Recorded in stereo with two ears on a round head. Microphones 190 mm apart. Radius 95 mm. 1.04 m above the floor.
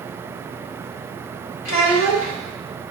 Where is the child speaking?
75° left (ahead or behind), 2.5 m.